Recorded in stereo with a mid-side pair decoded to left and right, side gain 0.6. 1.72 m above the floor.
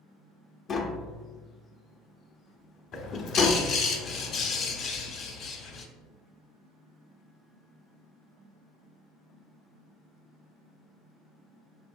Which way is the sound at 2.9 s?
60° left.